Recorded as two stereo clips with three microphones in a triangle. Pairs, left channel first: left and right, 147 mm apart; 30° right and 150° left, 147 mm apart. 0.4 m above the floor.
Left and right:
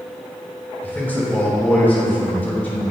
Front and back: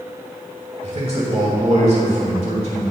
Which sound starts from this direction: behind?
A man speaking, at 0.8 s.